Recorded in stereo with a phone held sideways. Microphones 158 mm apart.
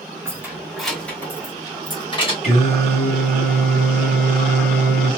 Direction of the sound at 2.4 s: 40° left (ahead or behind).